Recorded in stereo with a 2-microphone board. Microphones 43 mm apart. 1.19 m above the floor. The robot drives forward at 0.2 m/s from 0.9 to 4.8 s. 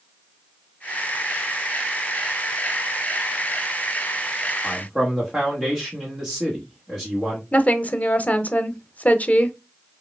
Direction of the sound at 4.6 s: 5° left (ahead or behind).